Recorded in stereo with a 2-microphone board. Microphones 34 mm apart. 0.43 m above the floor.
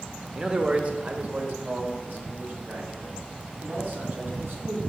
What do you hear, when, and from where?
0.3 s a man speaking: 25° right (ahead or behind), 0.9 m; by 4.8 s 70° right (ahead or behind), 4 m